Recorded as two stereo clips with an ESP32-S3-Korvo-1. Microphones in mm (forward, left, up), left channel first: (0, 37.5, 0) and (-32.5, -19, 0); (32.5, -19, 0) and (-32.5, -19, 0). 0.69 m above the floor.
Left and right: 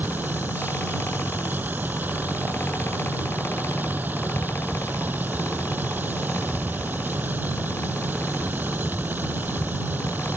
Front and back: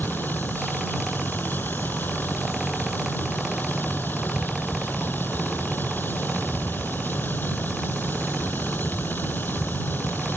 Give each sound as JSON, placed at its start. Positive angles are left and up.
{"t": 0.0, "sound": "a vehicle", "azimuth_deg": -60}